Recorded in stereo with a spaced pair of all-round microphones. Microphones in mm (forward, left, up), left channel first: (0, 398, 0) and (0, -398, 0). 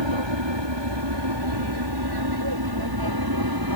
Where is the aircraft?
35° right (ahead or behind); by 3.8 s 25° right (ahead or behind).